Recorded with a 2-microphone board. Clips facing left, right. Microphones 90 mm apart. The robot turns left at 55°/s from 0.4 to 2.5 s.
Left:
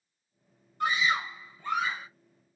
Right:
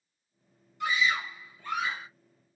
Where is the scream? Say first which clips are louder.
Left 1 dB; 75° left, 1.6 m; by 2.1 s 5° left, 1.6 m.